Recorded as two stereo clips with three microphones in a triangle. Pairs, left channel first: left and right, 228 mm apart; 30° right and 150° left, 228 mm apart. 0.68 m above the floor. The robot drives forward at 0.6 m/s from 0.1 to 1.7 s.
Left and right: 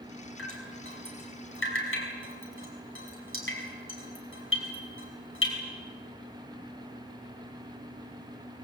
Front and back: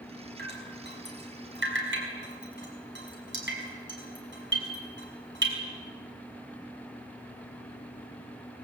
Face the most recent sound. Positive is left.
turn(degrees=115)